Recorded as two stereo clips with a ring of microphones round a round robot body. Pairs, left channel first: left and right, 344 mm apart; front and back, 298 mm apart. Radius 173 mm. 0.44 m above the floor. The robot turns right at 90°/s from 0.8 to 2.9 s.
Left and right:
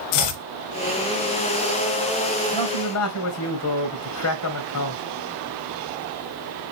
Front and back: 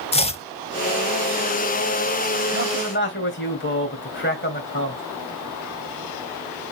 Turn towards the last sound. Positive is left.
turn(degrees=50)